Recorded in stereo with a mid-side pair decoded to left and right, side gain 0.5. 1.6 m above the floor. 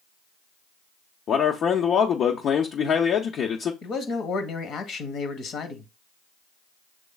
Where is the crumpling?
No crumpling in this recording.